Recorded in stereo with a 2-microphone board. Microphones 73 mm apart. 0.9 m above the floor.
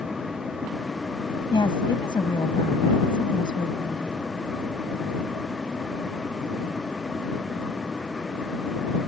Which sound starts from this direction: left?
A woman speaking, at 1.5 s.